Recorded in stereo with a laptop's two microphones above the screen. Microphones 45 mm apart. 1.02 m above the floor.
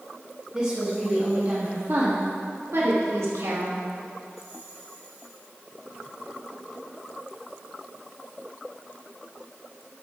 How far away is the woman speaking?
About 1.5 m.